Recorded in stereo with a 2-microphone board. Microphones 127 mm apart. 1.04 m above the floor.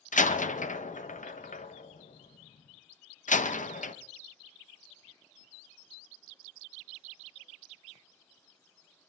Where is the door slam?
80° left, 0.7 m.